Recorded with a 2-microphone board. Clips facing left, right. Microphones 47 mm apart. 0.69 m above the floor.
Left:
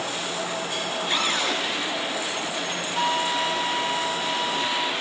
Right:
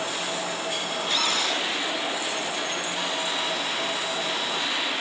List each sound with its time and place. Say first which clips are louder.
1.1 s a cupboard door: left 1 dB; 25° left (ahead or behind), 10 m
3.0 s a flute: left 9 dB; 35° left (ahead or behind), 1.5 m